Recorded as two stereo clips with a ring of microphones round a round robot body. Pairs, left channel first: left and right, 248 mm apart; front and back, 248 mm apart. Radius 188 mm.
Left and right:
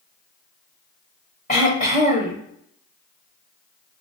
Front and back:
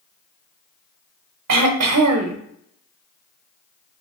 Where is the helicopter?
No helicopter in this recording.